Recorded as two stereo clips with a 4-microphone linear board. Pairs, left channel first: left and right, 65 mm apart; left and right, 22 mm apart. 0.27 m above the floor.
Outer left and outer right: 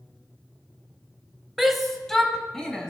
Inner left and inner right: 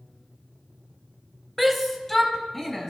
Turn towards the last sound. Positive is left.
turn(degrees=15)  # may be behind; listen again after turning